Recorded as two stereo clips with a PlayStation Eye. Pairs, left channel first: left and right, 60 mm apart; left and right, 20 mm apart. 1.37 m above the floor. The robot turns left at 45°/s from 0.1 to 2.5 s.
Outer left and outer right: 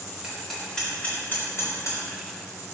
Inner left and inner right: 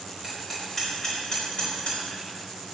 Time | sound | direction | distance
0.2 | hammering | 10° right (ahead or behind) | 4 m